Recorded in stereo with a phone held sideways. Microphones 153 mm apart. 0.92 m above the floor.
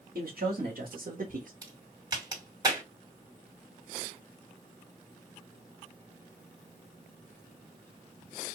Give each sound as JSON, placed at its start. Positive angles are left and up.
{"t": 0.1, "sound": "a man speaking", "side_deg": -80, "distance_m": 1.7}
{"t": 1.6, "sound": "a crack", "side_deg": -25, "distance_m": 2.5}